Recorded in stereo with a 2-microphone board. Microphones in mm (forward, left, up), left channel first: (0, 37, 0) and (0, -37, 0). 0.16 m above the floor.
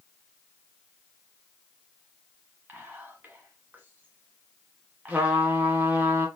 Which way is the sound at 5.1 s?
20° right (ahead or behind).